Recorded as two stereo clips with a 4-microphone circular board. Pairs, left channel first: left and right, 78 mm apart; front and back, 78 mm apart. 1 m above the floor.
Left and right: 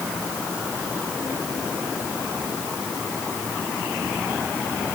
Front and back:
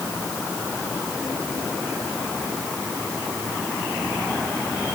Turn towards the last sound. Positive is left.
No sound to turn to.